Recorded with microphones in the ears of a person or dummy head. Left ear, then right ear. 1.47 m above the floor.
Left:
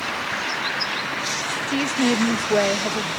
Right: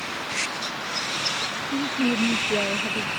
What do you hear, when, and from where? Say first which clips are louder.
1.7 s a woman speaking: left 5 dB; 60° left (ahead or behind)